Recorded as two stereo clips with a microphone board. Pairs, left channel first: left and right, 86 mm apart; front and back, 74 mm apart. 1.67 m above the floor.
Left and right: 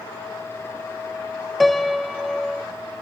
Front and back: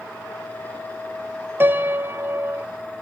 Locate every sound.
1.6 s a piano: straight behind, 0.7 m